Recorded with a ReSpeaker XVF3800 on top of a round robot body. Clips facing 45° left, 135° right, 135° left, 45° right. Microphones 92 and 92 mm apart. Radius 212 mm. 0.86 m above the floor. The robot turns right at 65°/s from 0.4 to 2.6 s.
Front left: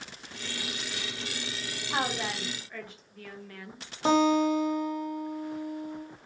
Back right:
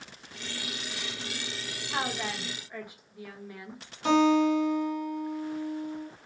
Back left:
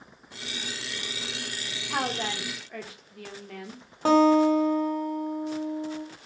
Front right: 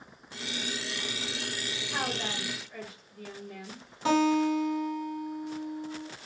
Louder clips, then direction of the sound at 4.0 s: Back right 1 dB, back left 6 dB; 95° left.